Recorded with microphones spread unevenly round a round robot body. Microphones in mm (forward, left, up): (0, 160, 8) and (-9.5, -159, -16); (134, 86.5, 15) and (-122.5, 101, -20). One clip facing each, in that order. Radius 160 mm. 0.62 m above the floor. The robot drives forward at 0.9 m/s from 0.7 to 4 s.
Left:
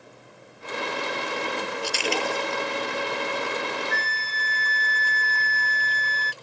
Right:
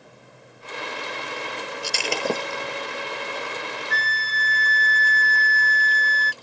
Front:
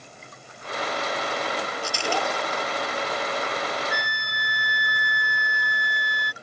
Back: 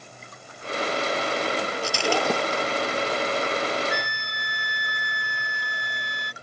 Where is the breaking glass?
135° right; by 2.8 s 140° right.